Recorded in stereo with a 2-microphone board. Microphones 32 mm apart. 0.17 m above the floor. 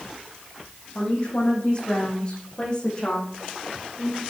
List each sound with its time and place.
0.9 s a woman speaking: 40° left (ahead or behind), 6 m; by 4.2 s 30° left (ahead or behind), 8 m